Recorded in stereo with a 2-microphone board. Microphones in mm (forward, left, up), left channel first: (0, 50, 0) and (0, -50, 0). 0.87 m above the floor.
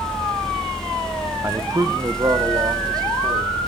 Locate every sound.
1.4 s a man speaking: 20° right (ahead or behind), 0.6 m; by 3.6 s 40° right (ahead or behind), 3 m